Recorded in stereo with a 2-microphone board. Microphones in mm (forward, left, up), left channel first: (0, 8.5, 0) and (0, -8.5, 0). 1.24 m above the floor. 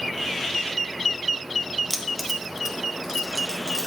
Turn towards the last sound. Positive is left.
turn(degrees=-35)  # may be behind; listen again after turning